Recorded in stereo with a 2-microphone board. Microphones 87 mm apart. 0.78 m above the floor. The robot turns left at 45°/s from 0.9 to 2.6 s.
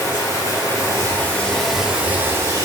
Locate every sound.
0.0 s running water: 35° left, 0.8 m; by 2.6 s 40° right, 0.8 m